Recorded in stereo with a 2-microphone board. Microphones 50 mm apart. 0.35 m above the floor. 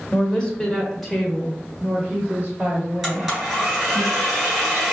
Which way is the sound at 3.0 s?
10° right (ahead or behind).